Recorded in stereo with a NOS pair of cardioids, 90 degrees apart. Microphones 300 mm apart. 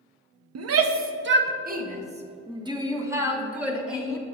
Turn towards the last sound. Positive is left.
turn(degrees=0)